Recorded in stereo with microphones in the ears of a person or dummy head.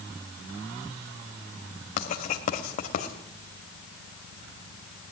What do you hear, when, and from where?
2.0 s writing: 45° left (ahead or behind), 2.5 m